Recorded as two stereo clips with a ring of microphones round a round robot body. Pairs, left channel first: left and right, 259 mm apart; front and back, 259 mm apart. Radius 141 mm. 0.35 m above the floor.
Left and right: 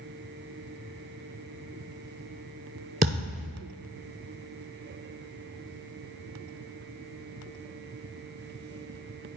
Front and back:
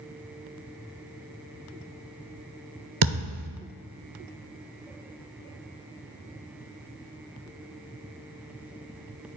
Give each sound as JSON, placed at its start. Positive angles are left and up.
{"t": 3.0, "sound": "a thud", "azimuth_deg": -150, "distance_m": 1.1}